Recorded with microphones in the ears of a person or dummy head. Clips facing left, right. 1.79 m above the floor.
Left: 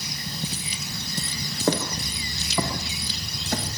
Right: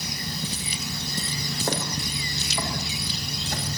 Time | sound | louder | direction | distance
1.7 | footsteps | left 6 dB | 70° left (ahead or behind) | 5.5 m